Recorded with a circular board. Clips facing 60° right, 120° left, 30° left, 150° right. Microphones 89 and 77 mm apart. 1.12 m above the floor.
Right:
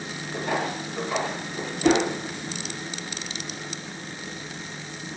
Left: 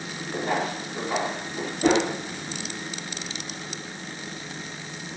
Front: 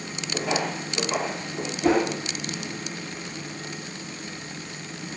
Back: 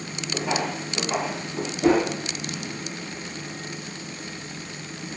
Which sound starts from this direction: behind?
A whoosh, at 1.8 s.